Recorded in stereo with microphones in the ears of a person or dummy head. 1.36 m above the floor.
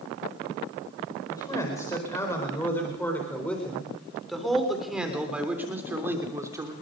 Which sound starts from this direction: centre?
A man speaking, at 1.3 s.